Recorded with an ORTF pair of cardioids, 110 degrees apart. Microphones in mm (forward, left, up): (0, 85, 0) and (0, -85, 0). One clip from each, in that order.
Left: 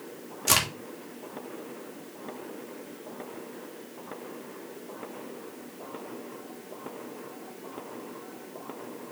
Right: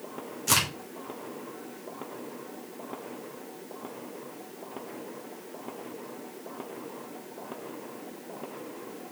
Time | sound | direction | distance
0.5 | a crack | 30° left | 3 m